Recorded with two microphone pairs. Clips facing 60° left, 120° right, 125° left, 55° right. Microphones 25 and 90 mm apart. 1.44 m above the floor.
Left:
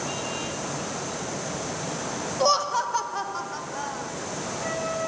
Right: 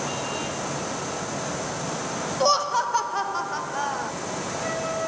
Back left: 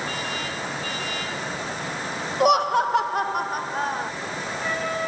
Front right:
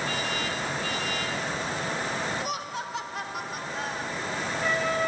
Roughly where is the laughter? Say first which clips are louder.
Right 1 dB, back left 14 dB; behind left.